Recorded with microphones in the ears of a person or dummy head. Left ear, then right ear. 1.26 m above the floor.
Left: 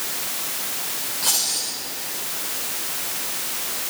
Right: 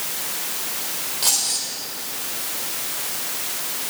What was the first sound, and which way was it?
Keys jangling, 15° right (ahead or behind).